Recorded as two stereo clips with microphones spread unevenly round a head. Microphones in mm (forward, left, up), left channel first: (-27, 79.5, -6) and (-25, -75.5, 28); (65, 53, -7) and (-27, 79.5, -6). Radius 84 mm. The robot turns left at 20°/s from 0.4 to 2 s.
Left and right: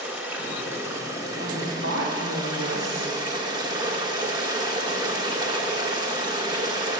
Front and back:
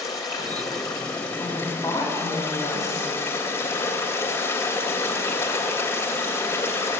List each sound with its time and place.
0.0 s running water: 35° right, 1.6 m; by 7.0 s 65° right, 1.6 m
1.4 s a woman speaking: 70° right, 3.5 m; by 3.1 s 80° right, 3.5 m